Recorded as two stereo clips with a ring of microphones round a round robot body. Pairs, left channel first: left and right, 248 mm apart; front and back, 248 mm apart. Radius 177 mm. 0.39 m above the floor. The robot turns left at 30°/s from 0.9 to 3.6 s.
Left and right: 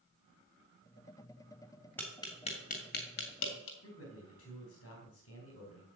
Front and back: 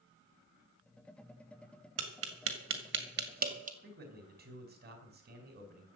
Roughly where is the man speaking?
Behind left.